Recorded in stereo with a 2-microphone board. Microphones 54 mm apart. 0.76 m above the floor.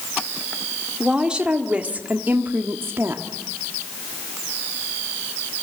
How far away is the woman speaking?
About 1.8 m.